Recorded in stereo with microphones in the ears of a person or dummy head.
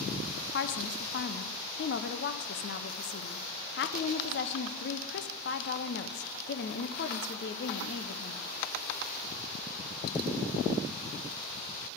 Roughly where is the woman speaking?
Left.